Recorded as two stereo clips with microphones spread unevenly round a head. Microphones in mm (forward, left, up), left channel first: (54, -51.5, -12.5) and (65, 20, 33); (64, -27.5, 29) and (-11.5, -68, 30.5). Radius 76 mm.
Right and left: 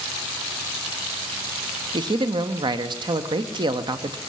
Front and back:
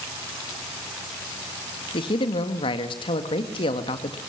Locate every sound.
1.9 s a man speaking: 50° left, 1.8 m